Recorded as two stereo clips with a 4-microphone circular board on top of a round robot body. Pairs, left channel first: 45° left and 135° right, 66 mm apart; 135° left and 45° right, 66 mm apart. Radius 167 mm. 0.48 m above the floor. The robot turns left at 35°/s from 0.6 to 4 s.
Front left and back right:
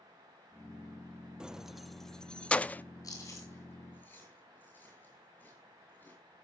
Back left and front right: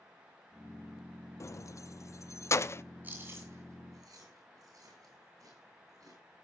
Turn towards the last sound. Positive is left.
turn(degrees=-20)